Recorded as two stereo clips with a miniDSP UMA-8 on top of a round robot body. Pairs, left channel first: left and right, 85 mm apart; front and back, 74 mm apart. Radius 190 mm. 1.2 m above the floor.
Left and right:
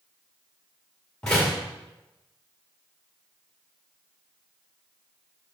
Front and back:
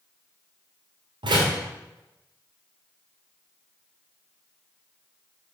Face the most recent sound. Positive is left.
turn(degrees=175)